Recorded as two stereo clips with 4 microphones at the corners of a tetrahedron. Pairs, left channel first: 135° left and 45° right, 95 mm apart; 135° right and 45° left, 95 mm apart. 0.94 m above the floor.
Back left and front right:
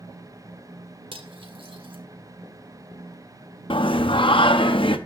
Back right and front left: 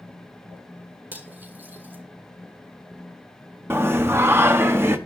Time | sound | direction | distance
1.1 | cutlery clinking | 25° right | 1.5 m
3.7 | singing | 110° left | 0.7 m